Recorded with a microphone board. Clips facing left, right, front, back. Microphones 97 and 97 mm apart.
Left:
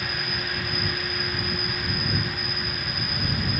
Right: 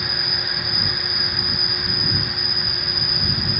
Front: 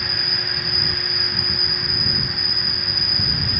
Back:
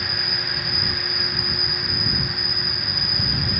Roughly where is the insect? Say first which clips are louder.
Right 1 dB, even; ahead left.